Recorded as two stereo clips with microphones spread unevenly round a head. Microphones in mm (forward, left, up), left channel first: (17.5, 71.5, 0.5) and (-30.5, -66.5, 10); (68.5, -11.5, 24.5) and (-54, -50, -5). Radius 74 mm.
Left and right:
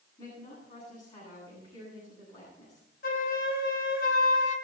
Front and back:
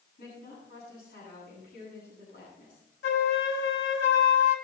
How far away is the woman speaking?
About 9.5 m.